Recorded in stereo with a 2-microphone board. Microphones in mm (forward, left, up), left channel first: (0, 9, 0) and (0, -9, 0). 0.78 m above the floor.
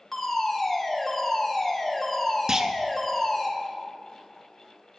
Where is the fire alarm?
15° left (ahead or behind), 2 m.